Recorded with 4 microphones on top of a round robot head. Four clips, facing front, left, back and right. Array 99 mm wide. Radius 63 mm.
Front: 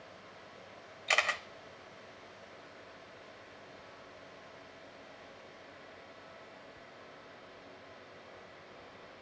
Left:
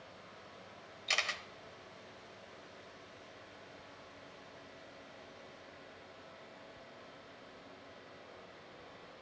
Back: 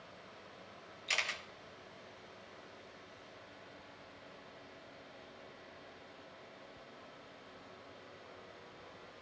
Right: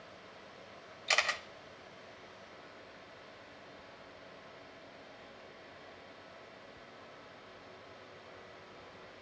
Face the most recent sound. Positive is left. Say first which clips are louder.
# right 5 dB, front 8 dB
turn(degrees=-30)